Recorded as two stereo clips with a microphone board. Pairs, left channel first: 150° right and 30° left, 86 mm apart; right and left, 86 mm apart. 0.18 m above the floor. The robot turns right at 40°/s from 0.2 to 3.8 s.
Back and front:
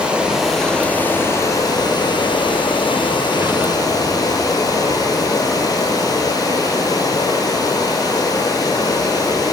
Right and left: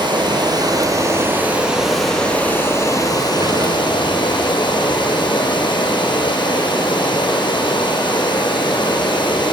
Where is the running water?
110° left, 0.9 m; by 9.5 s 105° right, 0.9 m.